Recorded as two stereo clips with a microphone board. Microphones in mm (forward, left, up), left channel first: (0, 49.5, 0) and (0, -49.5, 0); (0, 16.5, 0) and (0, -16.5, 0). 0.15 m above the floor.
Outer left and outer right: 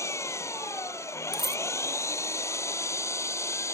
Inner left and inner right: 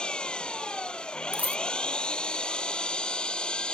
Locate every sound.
0.0 s an engine running: 30° left (ahead or behind)
1.3 s a dropped coin: 50° right (ahead or behind)